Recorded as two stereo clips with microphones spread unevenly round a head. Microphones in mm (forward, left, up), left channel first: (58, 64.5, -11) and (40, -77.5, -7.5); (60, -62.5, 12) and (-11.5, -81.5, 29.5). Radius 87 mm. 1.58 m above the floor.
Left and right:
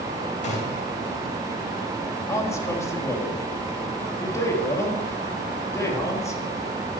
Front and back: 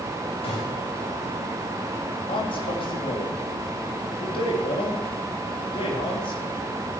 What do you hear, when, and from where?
0.4 s a gunshot: 45° left, 3 m
2.3 s a man speaking: 15° left, 3 m